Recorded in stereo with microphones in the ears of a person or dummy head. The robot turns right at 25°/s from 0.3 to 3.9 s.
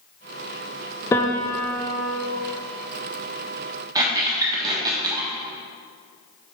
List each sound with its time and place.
1.1 s a piano: 15° left (ahead or behind), 0.5 m; by 2.3 s centre (ahead or behind), 0.5 m
4.0 s a squeak: 20° right (ahead or behind), 1.2 m